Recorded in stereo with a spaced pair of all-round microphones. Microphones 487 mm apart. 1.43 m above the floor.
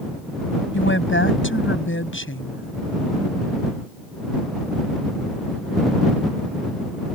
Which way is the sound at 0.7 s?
25° left (ahead or behind).